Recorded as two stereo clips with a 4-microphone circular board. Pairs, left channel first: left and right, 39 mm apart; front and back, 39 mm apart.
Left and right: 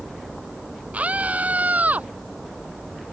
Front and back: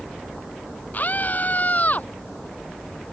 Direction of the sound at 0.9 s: 40° right.